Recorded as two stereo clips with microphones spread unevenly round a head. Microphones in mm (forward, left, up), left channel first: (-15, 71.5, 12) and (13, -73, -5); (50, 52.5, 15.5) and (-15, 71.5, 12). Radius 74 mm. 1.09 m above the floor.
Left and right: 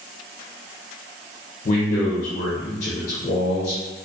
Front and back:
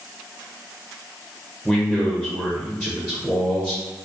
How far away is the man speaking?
About 0.7 m.